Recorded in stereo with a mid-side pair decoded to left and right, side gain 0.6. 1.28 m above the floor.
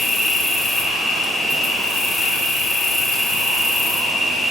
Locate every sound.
0.0 s an insect: 15° left, 0.7 m